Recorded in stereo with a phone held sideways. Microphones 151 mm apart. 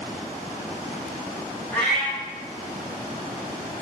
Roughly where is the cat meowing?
Centre.